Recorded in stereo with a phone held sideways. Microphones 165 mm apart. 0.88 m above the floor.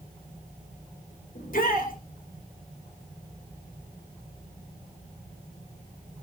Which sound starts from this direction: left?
A shout, at 1.4 s.